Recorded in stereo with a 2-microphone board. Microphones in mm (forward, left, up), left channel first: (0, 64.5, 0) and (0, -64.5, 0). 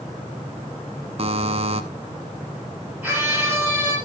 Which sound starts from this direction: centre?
A scream, at 3.0 s.